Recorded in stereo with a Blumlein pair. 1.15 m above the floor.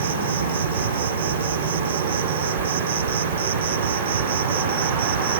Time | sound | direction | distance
0.0 | an insect | 65° right | ?